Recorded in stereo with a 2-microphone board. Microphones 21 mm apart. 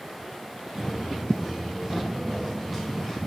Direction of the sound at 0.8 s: 10° right (ahead or behind).